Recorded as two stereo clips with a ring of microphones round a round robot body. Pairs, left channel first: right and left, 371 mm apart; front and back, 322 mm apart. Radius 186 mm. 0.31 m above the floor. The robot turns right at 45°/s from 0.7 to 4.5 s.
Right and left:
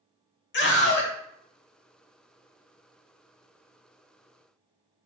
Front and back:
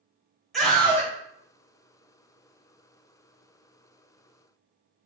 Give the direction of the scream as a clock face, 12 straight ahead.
3 o'clock.